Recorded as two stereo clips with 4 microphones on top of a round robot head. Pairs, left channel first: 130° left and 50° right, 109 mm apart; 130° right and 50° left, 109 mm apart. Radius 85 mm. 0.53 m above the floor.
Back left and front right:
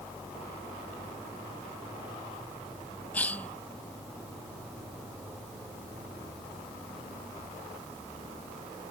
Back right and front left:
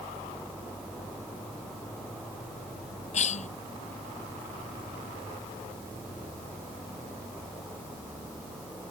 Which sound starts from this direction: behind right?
A cough, at 3.1 s.